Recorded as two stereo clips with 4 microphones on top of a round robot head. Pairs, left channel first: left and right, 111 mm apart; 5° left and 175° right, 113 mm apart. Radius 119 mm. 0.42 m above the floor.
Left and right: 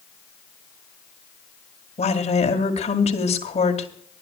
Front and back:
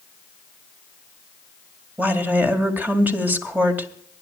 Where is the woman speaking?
110° left, 2 m.